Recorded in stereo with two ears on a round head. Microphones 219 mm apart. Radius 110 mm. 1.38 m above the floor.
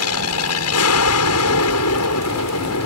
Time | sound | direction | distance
0.0 | an aircraft | 65° left (ahead or behind) | ?